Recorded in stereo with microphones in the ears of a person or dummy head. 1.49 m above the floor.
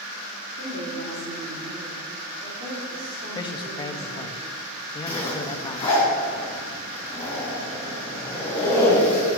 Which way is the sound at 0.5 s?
55° right (ahead or behind).